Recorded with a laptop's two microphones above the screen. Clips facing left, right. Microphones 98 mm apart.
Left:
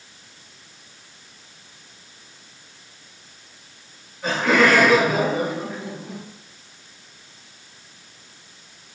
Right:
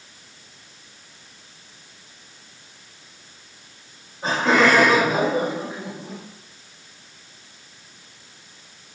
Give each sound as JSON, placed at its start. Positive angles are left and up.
{"t": 4.2, "sound": "laughter", "side_deg": -35, "distance_m": 7.5}